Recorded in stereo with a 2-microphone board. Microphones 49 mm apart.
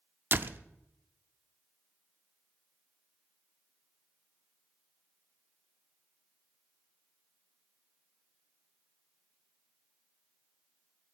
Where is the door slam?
45° right (ahead or behind), 0.6 m.